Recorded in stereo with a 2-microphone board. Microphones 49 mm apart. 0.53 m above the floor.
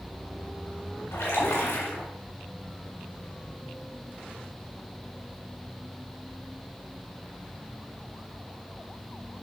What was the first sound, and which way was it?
A splash, 75° left (ahead or behind).